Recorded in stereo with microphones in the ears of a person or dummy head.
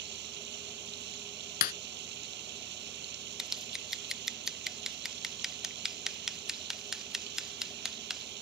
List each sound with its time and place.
0.0 s running water: 60° right (ahead or behind)
1.6 s breaking glass: 55° left (ahead or behind)
3.4 s scissors: centre (ahead or behind)